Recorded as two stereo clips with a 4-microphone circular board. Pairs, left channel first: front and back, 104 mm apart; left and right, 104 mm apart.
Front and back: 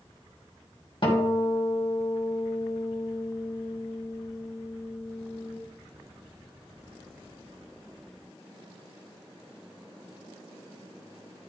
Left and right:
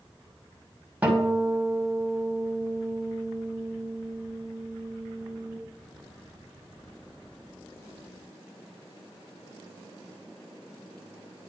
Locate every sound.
1.0 s a guitar: 20° right, 1.9 m